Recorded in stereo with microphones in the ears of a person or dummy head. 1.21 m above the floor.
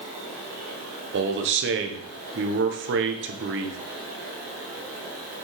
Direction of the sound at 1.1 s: 55° right (ahead or behind).